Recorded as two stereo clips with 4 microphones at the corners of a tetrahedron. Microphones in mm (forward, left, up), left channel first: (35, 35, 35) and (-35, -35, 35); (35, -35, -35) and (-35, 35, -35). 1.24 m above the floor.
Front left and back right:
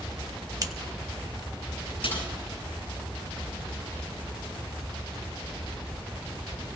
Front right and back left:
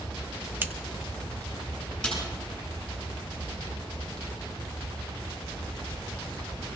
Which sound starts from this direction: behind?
Scissors, at 0.6 s.